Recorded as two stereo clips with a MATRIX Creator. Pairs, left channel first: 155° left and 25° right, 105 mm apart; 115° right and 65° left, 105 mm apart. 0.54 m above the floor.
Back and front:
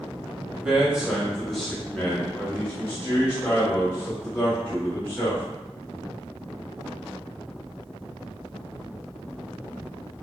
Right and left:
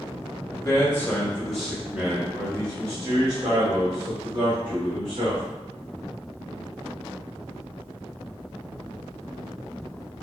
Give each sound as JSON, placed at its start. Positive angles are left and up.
{"t": 0.5, "sound": "a man speaking", "azimuth_deg": -90, "distance_m": 1.0}